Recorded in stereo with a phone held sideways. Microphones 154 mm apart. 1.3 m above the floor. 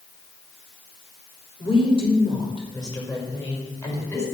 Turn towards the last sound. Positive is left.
turn(degrees=20)  # may be behind; listen again after turning